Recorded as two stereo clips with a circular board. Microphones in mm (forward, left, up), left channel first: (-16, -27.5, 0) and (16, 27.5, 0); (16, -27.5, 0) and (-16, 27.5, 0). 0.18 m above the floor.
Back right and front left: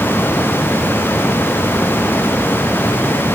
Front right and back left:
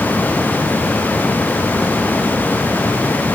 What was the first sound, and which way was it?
Only background noise.